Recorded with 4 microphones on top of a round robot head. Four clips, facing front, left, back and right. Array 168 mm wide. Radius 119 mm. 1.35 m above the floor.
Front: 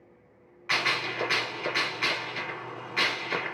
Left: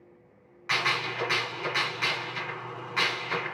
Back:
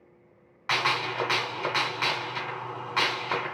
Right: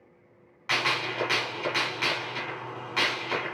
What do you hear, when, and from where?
0.7 s a gunshot: 170° right, 2 m